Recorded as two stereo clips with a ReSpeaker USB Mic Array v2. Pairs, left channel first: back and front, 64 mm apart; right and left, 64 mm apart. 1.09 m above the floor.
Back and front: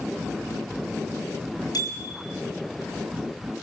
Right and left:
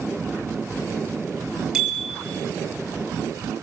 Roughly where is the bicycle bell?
Behind.